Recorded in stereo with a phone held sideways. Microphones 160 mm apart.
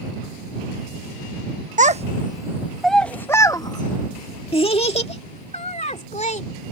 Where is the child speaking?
50° right (ahead or behind); by 6.4 s 45° left (ahead or behind).